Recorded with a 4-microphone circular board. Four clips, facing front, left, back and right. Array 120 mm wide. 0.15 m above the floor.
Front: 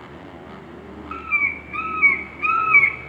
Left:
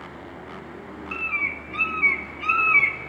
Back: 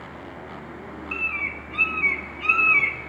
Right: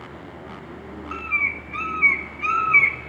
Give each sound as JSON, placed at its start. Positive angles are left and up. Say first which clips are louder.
{"t": 1.1, "sound": "a bird", "louder": "right 3 dB, front 7 dB", "azimuth_deg": -20, "distance_m": 0.7}